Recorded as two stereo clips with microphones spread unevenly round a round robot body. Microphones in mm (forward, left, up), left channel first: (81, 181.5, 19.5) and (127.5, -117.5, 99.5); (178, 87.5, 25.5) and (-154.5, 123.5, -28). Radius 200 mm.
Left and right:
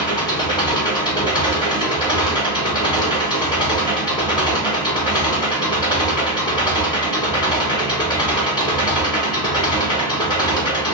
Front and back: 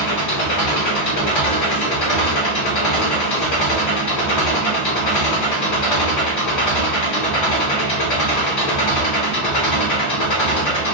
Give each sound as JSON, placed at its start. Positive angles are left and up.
{"t": 0.0, "sound": "an engine running", "azimuth_deg": 30, "distance_m": 1.8}